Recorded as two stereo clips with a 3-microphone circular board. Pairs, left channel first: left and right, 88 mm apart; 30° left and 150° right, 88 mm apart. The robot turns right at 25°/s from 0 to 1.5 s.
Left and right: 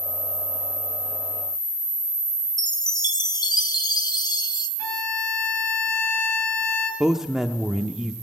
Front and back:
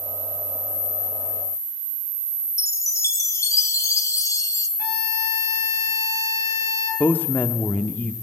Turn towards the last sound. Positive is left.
turn(degrees=-15)